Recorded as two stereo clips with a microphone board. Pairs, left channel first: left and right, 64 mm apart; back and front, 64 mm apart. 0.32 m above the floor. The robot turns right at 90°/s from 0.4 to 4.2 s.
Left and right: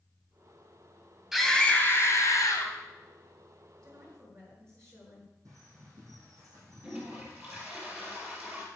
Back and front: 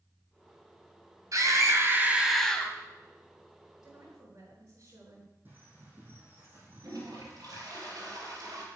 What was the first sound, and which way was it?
A scream, 5° right.